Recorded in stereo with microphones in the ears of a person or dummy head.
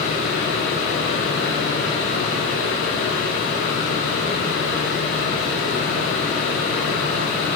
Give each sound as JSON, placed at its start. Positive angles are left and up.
{"t": 0.0, "sound": "a fan", "side_deg": 70, "distance_m": 4.5}